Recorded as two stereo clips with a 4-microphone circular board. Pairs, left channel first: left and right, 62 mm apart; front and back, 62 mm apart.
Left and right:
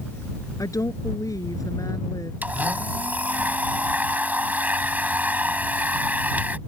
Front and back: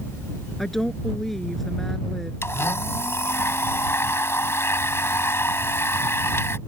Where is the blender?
30° right.